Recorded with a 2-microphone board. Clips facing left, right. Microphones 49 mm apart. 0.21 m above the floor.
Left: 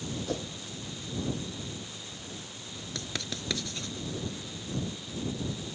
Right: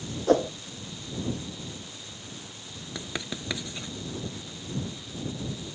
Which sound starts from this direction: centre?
Writing, at 3.0 s.